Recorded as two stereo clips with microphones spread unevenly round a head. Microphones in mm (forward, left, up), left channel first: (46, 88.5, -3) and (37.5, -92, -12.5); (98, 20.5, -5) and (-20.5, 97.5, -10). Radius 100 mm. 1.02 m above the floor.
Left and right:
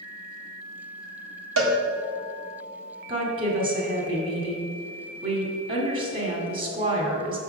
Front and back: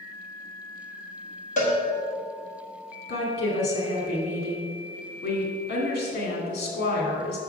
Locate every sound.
1.6 s a cowbell: 90° right, 1.4 m
3.1 s a woman speaking: 50° right, 2.5 m